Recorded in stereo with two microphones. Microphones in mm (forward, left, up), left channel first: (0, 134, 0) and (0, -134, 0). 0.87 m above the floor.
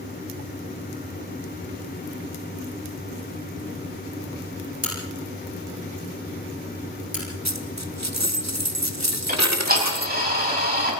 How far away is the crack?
About 9.5 m.